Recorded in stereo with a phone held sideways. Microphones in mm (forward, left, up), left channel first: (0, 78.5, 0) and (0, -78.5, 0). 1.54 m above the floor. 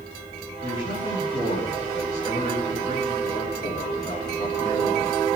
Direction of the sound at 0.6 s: 55° left (ahead or behind).